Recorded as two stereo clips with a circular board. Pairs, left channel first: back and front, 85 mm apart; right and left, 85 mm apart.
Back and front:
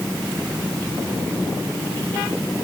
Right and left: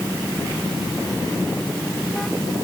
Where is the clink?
No clink in this recording.